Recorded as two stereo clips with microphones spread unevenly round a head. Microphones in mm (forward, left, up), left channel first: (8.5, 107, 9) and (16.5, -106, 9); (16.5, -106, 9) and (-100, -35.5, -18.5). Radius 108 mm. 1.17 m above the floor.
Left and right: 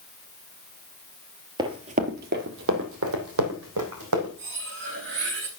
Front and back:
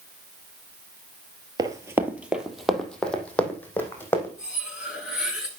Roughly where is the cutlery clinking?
Behind right.